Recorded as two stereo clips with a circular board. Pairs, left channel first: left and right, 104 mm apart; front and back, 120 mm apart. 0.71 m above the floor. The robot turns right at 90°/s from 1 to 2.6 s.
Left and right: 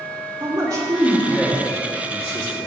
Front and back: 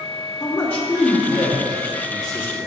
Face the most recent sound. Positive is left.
turn(degrees=80)